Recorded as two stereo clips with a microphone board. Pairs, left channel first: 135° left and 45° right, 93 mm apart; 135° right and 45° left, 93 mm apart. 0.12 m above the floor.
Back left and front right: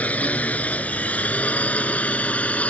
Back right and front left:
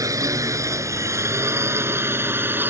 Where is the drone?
70° left; by 2.7 s 80° left.